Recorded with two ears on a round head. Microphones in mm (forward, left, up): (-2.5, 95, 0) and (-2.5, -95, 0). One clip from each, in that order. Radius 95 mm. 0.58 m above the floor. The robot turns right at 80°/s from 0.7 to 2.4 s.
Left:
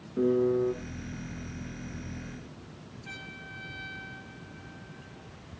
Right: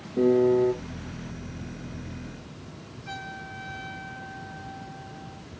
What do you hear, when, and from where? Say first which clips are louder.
0.2 s a piano: right 5 dB; 15° right (ahead or behind), 1.6 m; by 0.7 s 10° right (ahead or behind), 1.6 m
3.0 s a trumpet: right 5 dB; 20° left (ahead or behind), 6.5 m